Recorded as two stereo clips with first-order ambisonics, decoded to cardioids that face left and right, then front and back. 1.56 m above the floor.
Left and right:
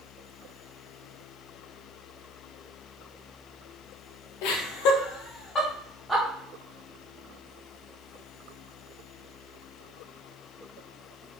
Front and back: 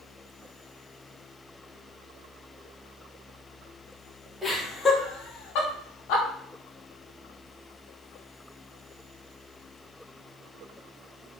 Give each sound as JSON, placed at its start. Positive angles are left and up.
{"t": 4.4, "sound": "laughter", "azimuth_deg": 90, "distance_m": 0.7}